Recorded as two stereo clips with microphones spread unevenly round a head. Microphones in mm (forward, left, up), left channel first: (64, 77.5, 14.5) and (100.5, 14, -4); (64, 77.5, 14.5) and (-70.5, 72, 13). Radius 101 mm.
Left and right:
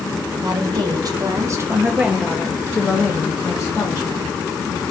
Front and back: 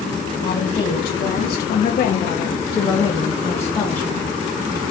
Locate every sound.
0.4 s a woman speaking: 40° right, 1.2 m; by 4.3 s 85° left, 1.5 m